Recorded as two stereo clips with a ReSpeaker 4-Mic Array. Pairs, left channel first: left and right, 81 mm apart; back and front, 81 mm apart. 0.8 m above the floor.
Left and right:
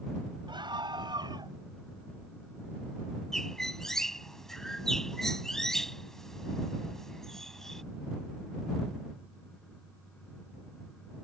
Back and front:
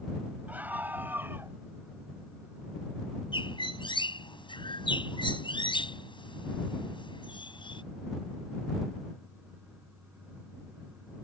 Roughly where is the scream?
Right.